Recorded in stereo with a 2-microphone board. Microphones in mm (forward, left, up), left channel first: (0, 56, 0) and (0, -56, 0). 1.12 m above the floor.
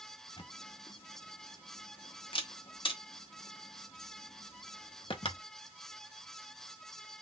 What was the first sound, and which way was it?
A camera shutter, 55° left (ahead or behind).